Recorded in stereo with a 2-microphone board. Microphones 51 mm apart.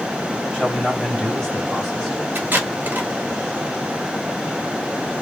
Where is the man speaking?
10° left (ahead or behind), 1.7 m.